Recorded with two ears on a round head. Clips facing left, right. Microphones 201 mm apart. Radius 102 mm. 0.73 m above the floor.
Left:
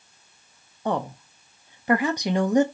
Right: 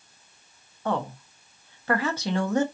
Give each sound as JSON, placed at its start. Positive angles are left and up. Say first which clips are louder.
{"t": 0.8, "sound": "a woman speaking", "louder": "left 2 dB", "side_deg": 15, "distance_m": 0.5}